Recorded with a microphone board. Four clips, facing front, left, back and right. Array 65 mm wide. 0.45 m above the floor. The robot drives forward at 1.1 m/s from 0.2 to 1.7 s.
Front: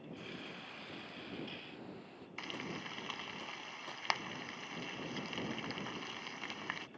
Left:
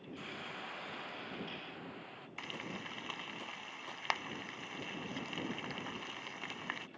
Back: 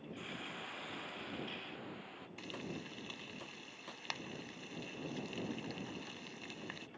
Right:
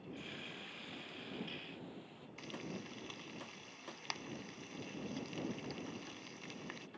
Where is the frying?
50° left.